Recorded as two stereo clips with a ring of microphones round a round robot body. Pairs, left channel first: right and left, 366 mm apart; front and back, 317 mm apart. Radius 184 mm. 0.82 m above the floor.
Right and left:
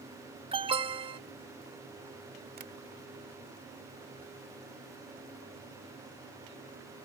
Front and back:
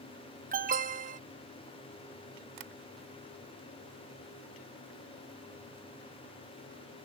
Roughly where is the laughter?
No laughter in this recording.